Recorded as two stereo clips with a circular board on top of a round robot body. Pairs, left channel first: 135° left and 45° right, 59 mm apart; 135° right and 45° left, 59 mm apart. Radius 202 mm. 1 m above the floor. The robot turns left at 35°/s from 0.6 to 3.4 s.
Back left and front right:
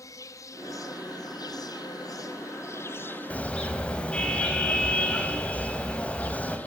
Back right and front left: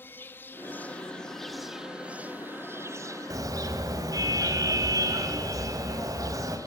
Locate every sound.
0.0 s an insect: 170° left, 1.1 m; by 6.7 s 70° left, 1.1 m
3.3 s a car horn: 65° left, 3 m; by 6.6 s 60° left, 3 m